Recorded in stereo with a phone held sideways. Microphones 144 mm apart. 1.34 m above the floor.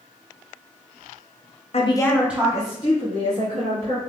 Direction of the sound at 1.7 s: 45° left (ahead or behind).